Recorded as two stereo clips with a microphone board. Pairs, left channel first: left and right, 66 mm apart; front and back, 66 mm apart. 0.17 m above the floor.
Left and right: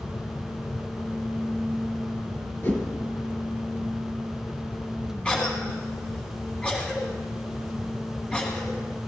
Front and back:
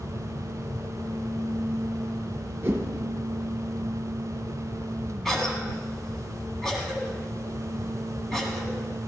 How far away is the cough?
About 1.4 m.